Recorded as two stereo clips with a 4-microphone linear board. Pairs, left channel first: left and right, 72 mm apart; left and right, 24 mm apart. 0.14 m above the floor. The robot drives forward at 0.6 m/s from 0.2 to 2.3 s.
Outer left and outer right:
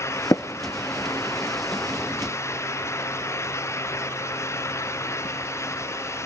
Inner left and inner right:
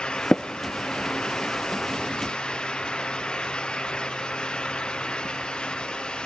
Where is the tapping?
45° left (ahead or behind), 0.8 m; by 0.4 s 40° left (ahead or behind), 0.9 m.